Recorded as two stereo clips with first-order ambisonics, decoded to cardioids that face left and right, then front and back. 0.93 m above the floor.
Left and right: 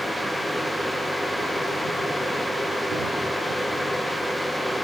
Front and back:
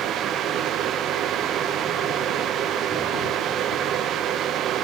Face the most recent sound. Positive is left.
No sound to turn to.